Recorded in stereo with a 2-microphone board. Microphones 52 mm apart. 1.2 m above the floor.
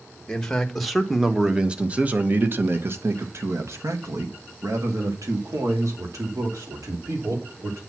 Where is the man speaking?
15° left (ahead or behind), 1.3 m; by 7.8 s 85° right, 3.5 m.